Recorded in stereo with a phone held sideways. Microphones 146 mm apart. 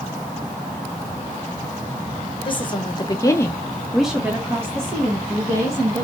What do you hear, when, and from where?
2.5 s a woman speaking: 35° left (ahead or behind), 0.9 m; by 6.0 s 25° right (ahead or behind), 1.5 m